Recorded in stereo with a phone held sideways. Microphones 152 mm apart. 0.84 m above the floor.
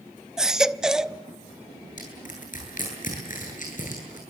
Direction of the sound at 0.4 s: 5° right (ahead or behind).